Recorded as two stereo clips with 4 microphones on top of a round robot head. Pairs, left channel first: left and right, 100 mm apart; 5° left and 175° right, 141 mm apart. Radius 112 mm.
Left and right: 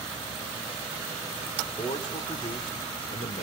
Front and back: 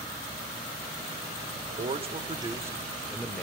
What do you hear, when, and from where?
1.6 s a man speaking: 150° left, 2.5 m; by 3.4 s 85° left, 2.5 m